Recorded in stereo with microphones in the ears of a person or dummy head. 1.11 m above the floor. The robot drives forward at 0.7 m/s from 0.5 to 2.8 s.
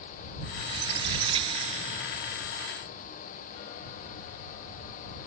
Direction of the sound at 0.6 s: 25° right (ahead or behind).